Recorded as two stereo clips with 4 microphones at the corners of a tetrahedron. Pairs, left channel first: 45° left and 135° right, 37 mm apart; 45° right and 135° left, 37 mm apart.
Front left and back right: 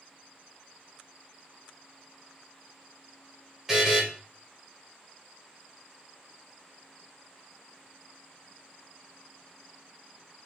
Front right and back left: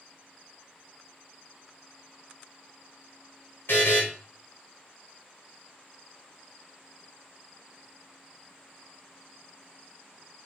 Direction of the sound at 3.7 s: 55° right.